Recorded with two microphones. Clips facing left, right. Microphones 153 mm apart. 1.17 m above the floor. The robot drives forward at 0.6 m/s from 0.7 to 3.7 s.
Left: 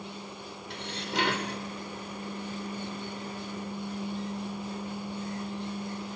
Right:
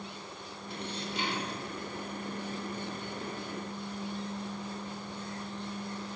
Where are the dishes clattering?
90° left, 3 m; by 1.6 s 80° left, 3 m.